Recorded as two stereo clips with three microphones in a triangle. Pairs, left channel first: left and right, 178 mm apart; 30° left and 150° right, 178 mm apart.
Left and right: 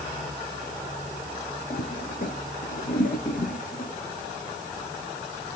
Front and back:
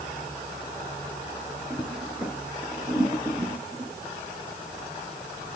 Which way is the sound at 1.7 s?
125° left.